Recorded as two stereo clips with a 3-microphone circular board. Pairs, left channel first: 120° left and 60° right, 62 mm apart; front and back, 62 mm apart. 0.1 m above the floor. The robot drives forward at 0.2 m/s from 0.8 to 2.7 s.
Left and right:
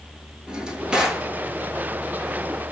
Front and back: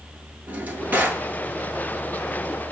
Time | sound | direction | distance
0.5 | a drawer | 125° right | 1.0 m